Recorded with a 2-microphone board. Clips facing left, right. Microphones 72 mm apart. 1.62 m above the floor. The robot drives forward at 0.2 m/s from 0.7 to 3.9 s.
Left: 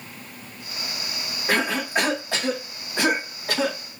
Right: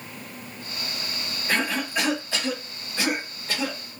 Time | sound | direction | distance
1.5 | a cough | 55° left (ahead or behind) | 3 m